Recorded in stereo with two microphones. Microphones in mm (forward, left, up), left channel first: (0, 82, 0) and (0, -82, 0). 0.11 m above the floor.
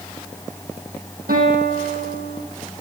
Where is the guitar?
70° right (ahead or behind), 4 m.